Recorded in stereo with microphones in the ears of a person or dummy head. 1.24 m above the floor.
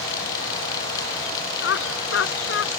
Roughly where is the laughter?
Left.